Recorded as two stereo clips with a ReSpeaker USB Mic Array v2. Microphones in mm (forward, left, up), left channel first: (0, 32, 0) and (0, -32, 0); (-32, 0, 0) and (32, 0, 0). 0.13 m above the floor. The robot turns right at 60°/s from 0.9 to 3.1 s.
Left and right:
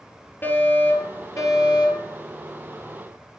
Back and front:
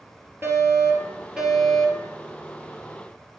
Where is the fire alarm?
45° left, 4 m; by 2.1 s 120° left, 4 m.